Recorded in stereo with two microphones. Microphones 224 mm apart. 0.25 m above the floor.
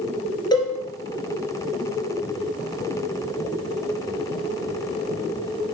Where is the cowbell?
20° left (ahead or behind), 2.5 m.